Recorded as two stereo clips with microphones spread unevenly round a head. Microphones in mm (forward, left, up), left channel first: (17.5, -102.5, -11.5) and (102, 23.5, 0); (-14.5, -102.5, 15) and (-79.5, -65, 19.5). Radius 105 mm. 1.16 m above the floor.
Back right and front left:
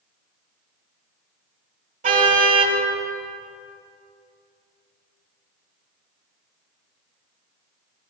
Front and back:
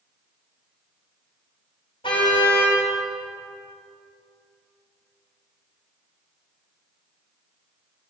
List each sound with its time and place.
2.0 s a car horn: 25° left, 3.5 m